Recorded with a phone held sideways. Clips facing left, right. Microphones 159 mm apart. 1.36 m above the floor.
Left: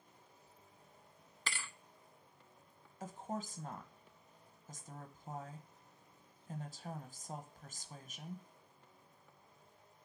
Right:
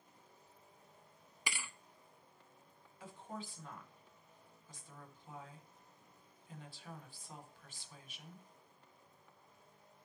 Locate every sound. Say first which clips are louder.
1.5 s a thud: even; 15° right (ahead or behind), 0.6 m
3.0 s a woman speaking: left 5 dB; 45° left (ahead or behind), 1.2 m